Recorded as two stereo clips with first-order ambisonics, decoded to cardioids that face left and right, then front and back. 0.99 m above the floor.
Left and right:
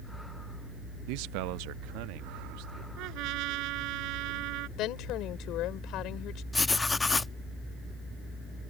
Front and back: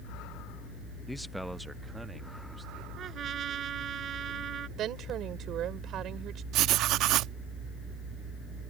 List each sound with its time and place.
1.1 s a man speaking: 85° right; by 2.9 s 100° right
3.0 s a trumpet: 120° right
4.8 s a woman speaking: 130° left
6.5 s writing: 165° left